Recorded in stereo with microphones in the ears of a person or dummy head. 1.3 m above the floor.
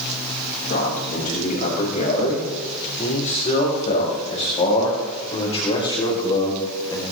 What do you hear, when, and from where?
0.7 s a man speaking: 60° left (ahead or behind), 8 m; by 7.0 s 30° left (ahead or behind), 5 m